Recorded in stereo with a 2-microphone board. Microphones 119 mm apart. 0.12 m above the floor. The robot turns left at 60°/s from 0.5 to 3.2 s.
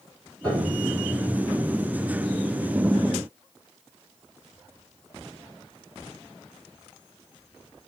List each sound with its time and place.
0.4 s a piano: 10° left (ahead or behind), 5.5 m; by 0.9 s 30° left (ahead or behind), 5.5 m